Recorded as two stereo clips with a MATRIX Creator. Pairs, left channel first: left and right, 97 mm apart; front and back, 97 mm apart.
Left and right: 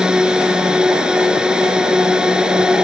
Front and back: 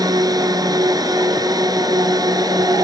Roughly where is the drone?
Behind.